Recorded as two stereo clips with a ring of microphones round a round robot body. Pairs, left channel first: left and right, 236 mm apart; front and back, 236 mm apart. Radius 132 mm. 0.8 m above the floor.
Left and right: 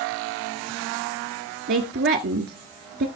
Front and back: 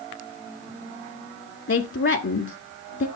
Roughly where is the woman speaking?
Ahead right.